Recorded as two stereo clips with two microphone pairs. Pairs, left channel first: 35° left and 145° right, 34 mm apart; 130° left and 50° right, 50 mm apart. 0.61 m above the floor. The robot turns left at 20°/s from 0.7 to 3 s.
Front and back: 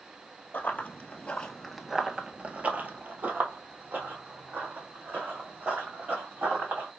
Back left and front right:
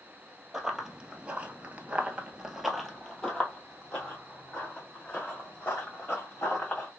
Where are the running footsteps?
30° left, 1.0 m; by 6.9 s 170° right, 3 m.